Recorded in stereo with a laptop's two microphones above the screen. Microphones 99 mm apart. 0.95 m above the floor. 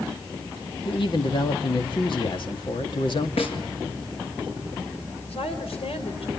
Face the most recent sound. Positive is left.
turn(degrees=85)